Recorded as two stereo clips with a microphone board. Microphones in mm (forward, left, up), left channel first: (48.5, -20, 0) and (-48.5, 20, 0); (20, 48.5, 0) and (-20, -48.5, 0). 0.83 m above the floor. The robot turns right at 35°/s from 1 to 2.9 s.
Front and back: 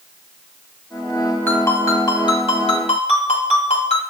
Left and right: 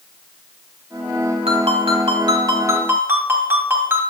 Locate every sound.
1.5 s a ringtone: 95° right, 3 m; by 4.0 s 45° right, 3 m